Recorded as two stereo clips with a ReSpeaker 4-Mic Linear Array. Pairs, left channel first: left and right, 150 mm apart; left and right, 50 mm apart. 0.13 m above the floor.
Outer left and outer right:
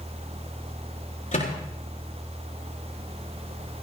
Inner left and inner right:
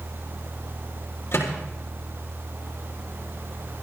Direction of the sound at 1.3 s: 55° left (ahead or behind).